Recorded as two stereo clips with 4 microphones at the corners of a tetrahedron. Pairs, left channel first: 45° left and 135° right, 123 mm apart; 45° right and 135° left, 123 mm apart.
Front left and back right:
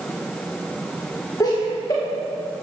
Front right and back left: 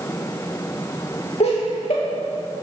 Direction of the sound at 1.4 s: 15° right.